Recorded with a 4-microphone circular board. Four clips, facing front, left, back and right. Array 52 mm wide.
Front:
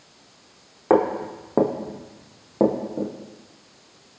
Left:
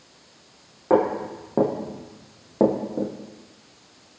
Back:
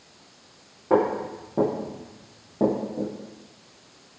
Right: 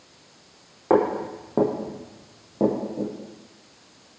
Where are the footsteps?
20° right, 1.2 m; by 3.1 s 60° left, 1.1 m.